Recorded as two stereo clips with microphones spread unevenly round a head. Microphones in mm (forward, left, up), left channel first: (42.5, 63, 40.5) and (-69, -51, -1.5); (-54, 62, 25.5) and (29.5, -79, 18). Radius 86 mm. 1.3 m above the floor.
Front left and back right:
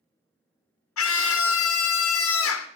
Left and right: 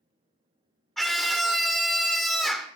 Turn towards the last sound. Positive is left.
turn(degrees=35)